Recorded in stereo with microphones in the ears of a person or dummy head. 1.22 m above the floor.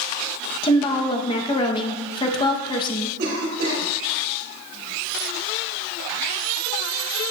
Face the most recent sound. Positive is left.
turn(degrees=-60)  # may be behind; listen again after turning